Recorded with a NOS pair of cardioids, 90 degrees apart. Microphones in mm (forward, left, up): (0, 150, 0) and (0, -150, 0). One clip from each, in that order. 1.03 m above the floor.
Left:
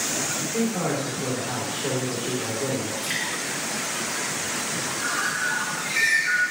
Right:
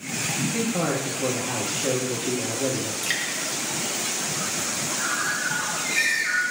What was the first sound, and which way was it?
A man speaking, 35° right.